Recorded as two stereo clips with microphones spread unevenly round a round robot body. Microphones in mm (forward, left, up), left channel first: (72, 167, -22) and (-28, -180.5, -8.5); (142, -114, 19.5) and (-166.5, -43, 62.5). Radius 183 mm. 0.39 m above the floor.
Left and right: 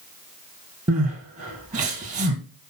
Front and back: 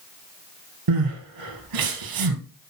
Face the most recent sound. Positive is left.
turn(degrees=-175)